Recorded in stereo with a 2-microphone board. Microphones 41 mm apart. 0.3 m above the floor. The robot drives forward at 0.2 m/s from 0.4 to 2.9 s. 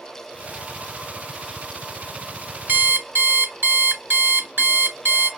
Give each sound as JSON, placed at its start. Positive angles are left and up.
{"t": 2.7, "sound": "an alarm clock", "side_deg": -55, "distance_m": 0.9}